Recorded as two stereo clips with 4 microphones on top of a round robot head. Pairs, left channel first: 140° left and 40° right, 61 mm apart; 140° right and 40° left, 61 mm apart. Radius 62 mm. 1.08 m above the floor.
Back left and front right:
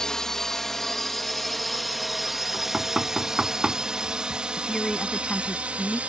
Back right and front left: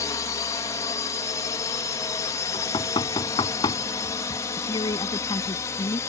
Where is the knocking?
125° right.